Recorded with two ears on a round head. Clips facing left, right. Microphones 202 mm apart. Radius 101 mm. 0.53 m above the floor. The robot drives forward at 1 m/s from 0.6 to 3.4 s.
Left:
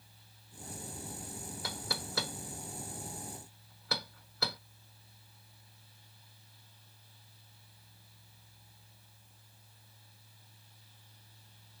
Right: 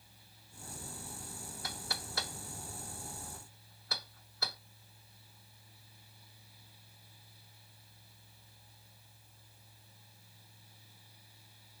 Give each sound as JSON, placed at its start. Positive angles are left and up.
{"t": 1.6, "sound": "knocking", "side_deg": 65}